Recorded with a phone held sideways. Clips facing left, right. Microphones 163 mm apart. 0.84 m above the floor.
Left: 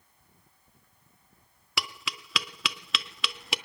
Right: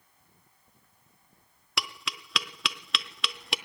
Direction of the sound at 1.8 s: Centre (ahead or behind).